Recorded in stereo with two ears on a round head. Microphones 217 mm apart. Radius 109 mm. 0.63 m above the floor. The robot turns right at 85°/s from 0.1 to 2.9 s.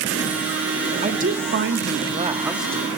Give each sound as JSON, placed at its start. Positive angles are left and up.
{"t": 1.0, "sound": "a woman speaking", "side_deg": -25, "distance_m": 0.7}